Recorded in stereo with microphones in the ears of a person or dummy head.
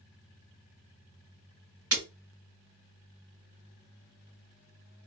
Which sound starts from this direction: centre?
Breaking glass, at 1.9 s.